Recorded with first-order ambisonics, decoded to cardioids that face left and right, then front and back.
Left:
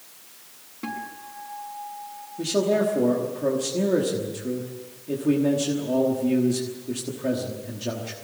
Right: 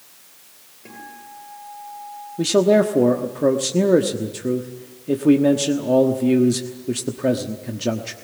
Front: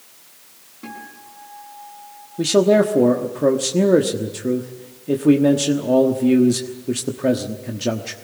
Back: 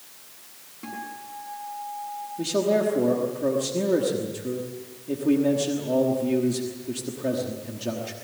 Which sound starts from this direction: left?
A guitar, at 0.8 s.